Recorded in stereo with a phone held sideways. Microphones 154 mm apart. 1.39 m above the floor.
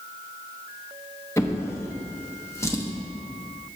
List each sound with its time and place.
1.4 s a drawer: 20° left (ahead or behind), 0.8 m